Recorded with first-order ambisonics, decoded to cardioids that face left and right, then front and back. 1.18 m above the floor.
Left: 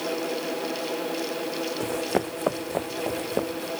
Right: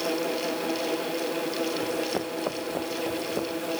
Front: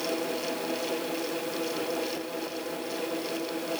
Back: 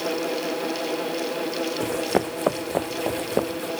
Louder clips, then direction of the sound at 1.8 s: Left 2 dB, back 7 dB; 150° left.